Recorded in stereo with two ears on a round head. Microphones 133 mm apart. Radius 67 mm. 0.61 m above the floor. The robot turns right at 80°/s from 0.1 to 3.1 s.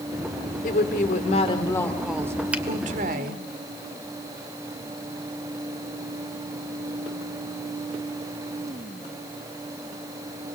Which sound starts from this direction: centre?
A finger snap, at 2.5 s.